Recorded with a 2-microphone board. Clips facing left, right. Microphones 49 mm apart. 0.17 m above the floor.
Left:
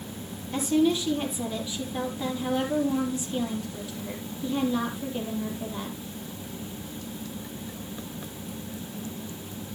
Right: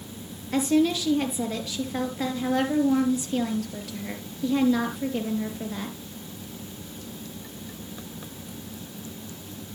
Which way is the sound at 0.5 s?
65° right (ahead or behind).